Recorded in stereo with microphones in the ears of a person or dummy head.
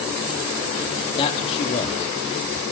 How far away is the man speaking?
About 2.5 m.